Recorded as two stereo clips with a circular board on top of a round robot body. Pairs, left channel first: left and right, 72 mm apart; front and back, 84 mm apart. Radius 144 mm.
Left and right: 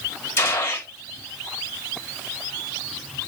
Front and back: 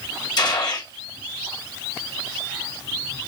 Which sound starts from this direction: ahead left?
A gunshot, at 0.4 s.